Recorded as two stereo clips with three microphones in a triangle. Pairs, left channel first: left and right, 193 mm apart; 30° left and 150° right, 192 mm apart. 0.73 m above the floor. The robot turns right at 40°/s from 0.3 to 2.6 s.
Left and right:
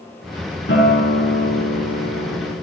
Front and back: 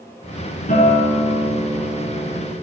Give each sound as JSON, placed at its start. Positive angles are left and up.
{"t": 0.7, "sound": "a guitar", "azimuth_deg": 75, "distance_m": 6.5}